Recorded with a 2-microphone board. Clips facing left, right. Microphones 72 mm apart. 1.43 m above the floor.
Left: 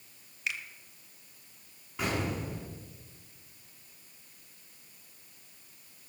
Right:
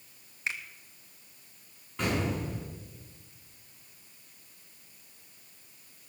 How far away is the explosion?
About 7.5 m.